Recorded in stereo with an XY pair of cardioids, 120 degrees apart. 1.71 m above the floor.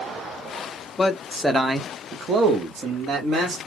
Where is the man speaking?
25° left, 0.7 m; by 3.6 s 65° right, 1.4 m.